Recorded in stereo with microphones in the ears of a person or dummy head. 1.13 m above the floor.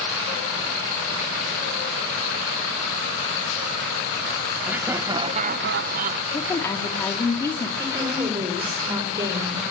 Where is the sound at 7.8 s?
25° right (ahead or behind), 5 m.